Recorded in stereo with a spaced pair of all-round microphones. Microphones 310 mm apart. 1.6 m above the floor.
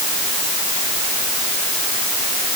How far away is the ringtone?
No ringtone in this recording.